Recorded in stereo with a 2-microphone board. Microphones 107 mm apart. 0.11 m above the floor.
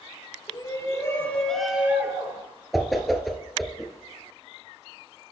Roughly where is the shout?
Left.